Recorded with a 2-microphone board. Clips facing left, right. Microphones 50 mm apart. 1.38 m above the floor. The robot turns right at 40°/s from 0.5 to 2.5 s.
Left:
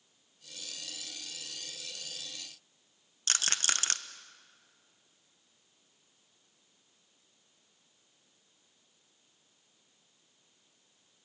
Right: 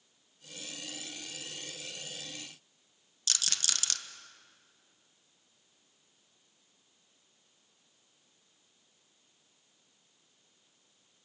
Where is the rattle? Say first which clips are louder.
Left 4 dB; 35° left (ahead or behind), 1.1 m.